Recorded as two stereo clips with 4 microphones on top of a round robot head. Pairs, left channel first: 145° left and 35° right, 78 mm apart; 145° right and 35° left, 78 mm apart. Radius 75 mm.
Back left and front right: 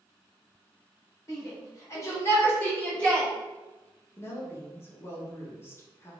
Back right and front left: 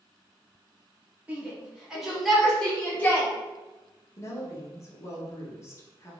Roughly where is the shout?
Left.